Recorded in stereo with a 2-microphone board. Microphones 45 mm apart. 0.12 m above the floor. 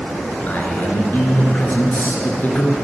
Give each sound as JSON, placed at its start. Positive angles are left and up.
{"t": 0.5, "sound": "a man speaking", "side_deg": 45, "distance_m": 2.0}